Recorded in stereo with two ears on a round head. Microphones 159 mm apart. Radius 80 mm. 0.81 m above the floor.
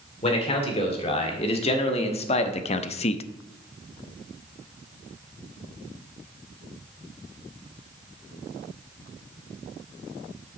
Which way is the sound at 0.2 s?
35° left (ahead or behind).